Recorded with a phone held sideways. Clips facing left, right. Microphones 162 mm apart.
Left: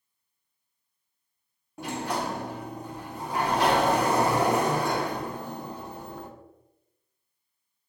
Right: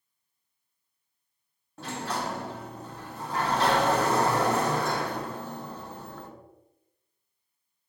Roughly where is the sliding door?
Centre.